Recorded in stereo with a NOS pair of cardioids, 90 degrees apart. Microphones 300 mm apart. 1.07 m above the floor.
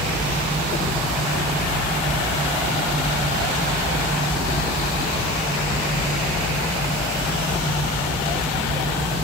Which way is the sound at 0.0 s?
5° right.